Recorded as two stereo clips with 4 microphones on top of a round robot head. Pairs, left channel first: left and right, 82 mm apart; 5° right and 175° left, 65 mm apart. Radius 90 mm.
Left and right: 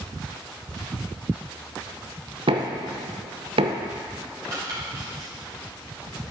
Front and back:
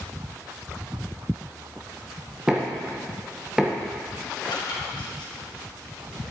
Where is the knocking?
105° right, 0.8 m.